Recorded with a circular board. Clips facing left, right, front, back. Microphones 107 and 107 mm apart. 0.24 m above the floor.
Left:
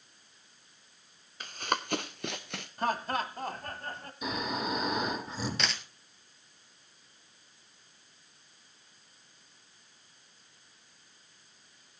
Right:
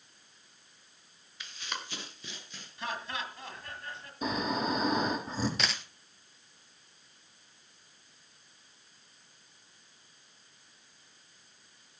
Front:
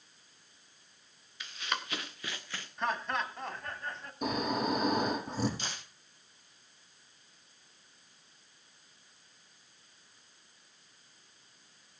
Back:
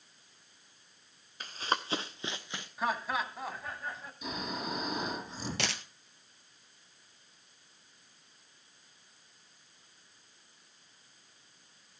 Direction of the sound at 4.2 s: 35° right.